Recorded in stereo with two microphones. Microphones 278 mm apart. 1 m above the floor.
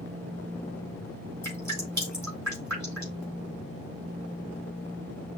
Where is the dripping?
85° right, 3.5 m.